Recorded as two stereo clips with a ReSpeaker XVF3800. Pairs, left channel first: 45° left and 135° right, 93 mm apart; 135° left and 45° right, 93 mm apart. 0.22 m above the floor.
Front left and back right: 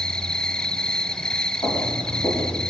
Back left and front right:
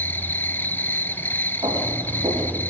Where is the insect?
115° left, 0.8 m.